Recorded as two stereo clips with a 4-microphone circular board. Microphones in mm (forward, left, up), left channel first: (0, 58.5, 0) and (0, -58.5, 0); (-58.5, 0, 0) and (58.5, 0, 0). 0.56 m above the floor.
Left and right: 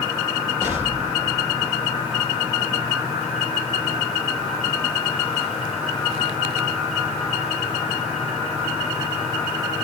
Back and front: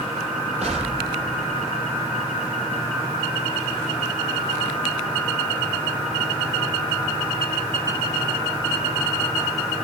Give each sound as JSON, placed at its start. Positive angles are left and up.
{"t": 0.6, "sound": "an explosion", "azimuth_deg": -25, "distance_m": 5.5}